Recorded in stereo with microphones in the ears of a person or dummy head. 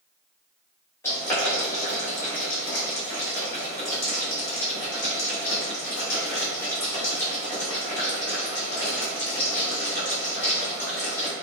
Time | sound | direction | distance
1.0 | boiling | 15° left (ahead or behind) | 1.8 m